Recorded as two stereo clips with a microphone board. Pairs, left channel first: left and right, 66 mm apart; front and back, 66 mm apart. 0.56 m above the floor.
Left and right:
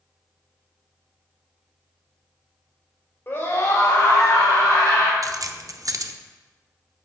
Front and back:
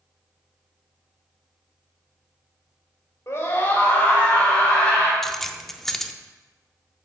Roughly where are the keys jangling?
Right.